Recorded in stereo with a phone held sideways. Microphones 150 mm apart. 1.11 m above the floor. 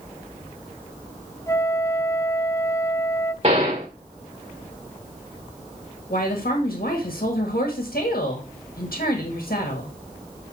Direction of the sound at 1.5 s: 20° left (ahead or behind).